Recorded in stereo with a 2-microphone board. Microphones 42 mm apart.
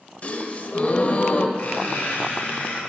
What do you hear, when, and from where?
0.2 s a gasp: 40° left (ahead or behind), 0.5 m
1.6 s a squeak: 45° left (ahead or behind), 3 m